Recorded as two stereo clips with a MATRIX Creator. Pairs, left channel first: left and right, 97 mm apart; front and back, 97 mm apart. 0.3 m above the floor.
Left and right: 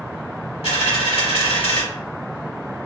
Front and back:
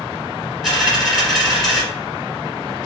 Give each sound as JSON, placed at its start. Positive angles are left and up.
{"t": 0.6, "sound": "a dropped coin", "azimuth_deg": 90, "distance_m": 1.9}